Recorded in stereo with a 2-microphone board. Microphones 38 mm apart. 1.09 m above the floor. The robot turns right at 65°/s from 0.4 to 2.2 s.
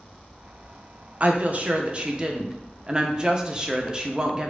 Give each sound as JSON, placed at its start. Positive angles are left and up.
{"t": 1.2, "sound": "a woman speaking", "azimuth_deg": -100, "distance_m": 0.7}